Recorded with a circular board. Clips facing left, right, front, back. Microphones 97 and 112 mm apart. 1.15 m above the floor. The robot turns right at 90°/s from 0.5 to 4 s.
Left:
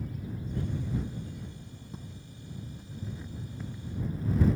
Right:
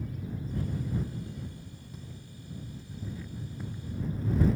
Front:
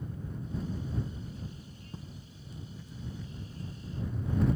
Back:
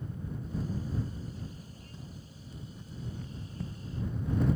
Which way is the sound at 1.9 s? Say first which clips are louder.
Left 1 dB, front 2 dB; 40° left.